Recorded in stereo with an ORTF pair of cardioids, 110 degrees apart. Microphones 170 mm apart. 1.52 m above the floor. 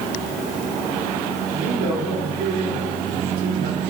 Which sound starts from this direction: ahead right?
A man speaking, at 1.5 s.